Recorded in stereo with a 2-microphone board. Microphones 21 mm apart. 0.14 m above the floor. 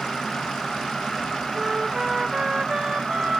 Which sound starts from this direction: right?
A flute, at 1.6 s.